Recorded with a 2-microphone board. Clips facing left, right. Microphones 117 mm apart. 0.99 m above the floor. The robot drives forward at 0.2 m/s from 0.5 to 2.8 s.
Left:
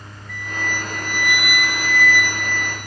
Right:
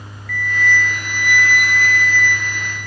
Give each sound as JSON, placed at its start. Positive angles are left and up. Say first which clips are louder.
{"t": 0.3, "sound": "a flute", "louder": "right 8 dB", "side_deg": 25, "distance_m": 0.6}